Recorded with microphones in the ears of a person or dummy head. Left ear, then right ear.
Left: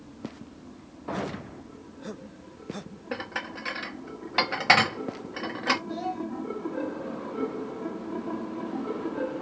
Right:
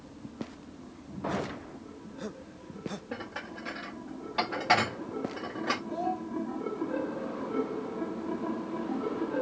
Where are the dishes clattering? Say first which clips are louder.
Left 6 dB; 45° left (ahead or behind), 1.7 m.